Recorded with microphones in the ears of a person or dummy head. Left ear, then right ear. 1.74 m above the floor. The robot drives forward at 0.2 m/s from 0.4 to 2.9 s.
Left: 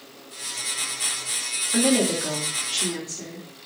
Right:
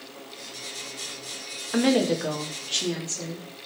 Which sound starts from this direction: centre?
A woman speaking, at 1.7 s.